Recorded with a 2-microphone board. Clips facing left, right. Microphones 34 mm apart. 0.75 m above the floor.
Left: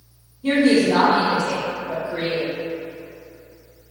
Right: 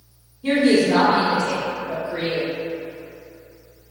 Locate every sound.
0.4 s a woman speaking: 20° right (ahead or behind), 1.8 m